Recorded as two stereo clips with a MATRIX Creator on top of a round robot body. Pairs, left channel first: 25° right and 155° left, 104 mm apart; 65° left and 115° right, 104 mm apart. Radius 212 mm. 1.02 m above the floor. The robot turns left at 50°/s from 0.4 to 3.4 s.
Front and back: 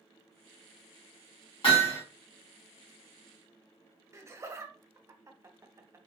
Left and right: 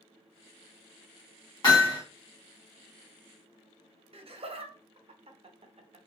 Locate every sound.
1.6 s hammering: 15° left, 1.7 m; by 2.0 s straight ahead, 1.7 m
4.1 s laughter: 140° right, 0.7 m